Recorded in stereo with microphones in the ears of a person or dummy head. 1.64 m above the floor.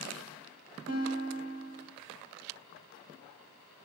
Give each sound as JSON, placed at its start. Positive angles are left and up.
{"t": 0.9, "sound": "a guitar", "side_deg": -80, "distance_m": 3.0}